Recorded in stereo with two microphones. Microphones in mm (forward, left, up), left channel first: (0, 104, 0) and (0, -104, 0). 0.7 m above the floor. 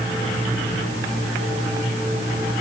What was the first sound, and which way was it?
Only background noise.